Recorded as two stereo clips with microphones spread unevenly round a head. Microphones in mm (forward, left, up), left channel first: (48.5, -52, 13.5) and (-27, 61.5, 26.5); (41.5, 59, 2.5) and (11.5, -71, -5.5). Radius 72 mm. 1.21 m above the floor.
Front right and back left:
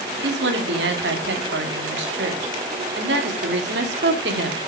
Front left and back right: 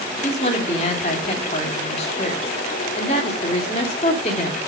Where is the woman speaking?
130° left, 3 m.